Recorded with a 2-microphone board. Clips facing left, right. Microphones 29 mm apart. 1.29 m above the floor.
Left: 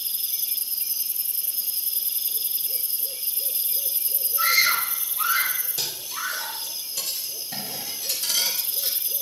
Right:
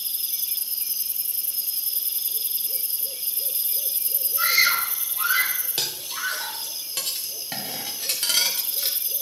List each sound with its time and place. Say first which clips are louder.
4.4 s a scream: even; 15° right (ahead or behind), 6 m
5.8 s cutlery clinking: right 4 dB; 60° right (ahead or behind), 2.5 m